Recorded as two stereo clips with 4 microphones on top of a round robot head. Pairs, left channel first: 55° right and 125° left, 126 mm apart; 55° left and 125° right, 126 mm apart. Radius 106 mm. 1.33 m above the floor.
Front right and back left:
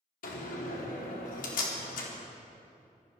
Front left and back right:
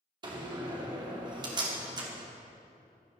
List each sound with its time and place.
0.2 s a door slam: 65° right, 3 m